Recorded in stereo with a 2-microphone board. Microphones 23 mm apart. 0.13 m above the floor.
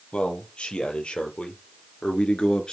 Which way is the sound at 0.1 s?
55° left (ahead or behind).